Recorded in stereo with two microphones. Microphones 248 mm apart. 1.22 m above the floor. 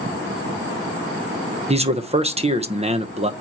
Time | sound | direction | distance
1.7 | a man speaking | 25° right (ahead or behind) | 0.9 m